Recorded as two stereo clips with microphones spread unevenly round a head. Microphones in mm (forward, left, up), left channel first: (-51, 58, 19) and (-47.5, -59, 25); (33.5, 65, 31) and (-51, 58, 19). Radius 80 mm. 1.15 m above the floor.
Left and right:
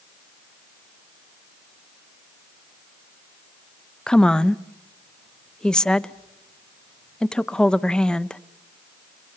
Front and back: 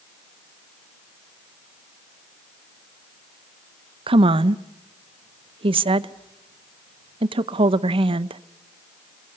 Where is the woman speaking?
175° left, 0.8 m.